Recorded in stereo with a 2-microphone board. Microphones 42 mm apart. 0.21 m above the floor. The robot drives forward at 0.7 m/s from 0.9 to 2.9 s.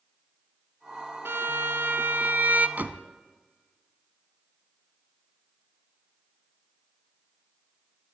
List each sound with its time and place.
1.2 s a violin: 65° right (ahead or behind), 0.9 m; by 2.7 s 45° right (ahead or behind), 1.3 m
2.8 s a door slam: 45° right (ahead or behind), 1.2 m